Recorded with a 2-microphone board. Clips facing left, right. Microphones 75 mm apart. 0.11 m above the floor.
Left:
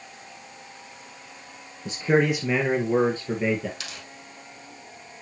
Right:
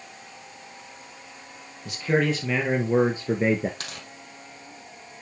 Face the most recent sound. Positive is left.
turn(degrees=-45)  # may be behind; listen again after turning